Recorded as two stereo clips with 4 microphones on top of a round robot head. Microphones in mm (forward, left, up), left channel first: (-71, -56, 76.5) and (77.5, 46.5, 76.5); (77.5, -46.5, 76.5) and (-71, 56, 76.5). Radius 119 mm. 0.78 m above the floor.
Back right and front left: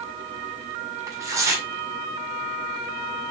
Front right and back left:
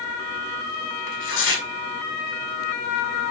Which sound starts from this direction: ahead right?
Tearing paper, at 1.1 s.